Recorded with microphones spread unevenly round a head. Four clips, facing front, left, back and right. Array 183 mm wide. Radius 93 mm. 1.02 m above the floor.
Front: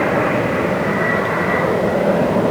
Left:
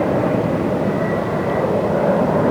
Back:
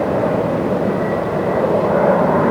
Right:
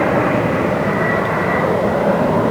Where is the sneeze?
No sneeze in this recording.